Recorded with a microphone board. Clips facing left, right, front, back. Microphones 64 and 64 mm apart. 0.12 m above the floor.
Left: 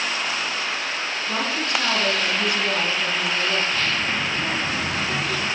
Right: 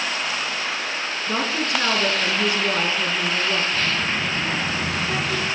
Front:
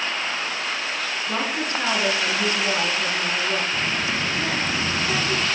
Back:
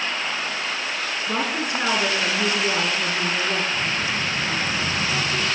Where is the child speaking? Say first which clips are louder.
Even, even; straight ahead, 1.9 m.